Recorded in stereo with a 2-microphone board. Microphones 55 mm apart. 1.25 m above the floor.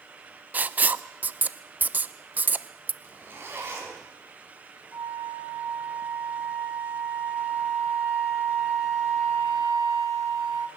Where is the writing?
30° right (ahead or behind), 0.5 m.